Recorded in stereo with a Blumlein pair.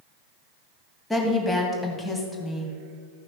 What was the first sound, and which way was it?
A woman speaking, straight ahead.